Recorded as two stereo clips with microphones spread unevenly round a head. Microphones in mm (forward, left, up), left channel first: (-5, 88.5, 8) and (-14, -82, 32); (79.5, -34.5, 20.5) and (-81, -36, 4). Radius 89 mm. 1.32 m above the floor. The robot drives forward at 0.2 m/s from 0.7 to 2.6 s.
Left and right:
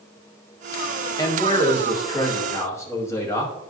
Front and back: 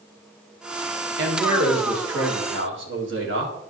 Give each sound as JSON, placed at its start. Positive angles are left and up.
{"t": 1.2, "sound": "a man speaking", "azimuth_deg": 160, "distance_m": 1.5}